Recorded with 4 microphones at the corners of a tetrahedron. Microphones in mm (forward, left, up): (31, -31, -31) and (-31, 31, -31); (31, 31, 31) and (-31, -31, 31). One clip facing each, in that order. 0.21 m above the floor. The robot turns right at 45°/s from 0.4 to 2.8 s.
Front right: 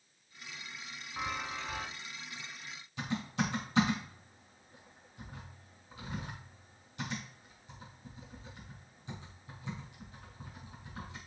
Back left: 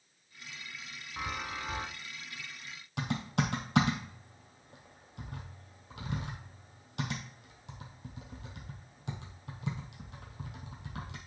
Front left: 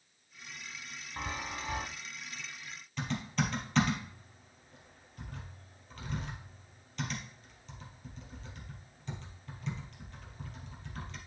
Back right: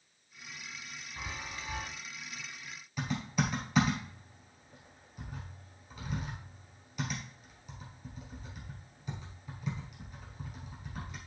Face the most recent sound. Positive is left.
turn(degrees=145)